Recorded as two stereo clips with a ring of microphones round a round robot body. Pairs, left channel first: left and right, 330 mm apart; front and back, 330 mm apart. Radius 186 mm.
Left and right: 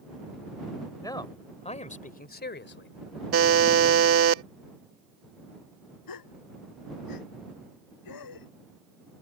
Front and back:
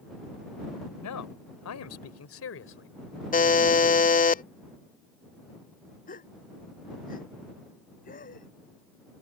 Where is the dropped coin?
I don't hear a dropped coin.